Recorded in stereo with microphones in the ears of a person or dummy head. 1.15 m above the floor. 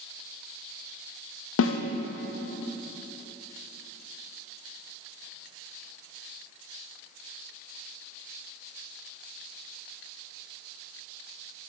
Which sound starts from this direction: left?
A snare drum, at 1.6 s.